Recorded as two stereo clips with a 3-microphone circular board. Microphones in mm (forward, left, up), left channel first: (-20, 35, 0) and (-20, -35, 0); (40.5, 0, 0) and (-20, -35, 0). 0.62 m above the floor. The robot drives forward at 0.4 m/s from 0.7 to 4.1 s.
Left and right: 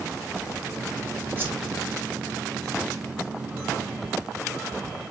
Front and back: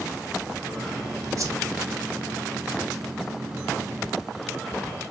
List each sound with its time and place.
1.4 s a whoosh: 140° right, 1.1 m; by 1.6 s 145° right, 1.1 m